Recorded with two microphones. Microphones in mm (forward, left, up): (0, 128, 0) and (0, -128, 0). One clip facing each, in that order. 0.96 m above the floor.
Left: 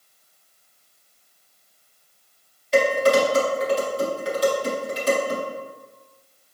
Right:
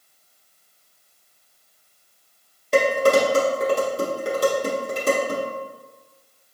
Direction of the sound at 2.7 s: 55° right (ahead or behind).